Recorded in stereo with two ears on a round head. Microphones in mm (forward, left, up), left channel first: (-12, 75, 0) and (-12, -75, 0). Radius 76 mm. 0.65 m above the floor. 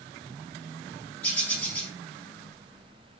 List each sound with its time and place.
1.2 s a bird: 5° left (ahead or behind), 4.5 m